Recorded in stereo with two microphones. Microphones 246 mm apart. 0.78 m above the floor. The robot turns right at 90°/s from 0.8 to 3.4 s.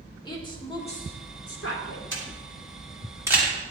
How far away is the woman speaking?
About 1.5 m.